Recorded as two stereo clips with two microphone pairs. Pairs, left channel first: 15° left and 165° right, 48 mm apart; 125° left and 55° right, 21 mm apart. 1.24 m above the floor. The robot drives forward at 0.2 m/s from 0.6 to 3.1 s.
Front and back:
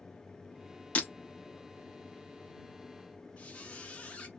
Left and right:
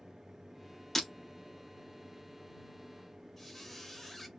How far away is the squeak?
About 0.6 m.